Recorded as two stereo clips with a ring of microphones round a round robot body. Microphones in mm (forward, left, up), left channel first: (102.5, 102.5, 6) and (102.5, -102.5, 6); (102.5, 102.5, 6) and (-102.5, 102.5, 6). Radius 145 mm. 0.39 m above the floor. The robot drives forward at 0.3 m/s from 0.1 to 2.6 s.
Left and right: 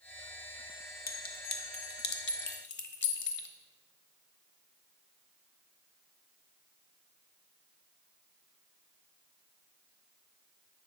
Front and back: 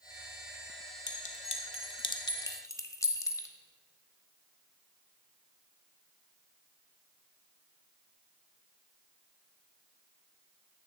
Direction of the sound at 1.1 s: 50° left.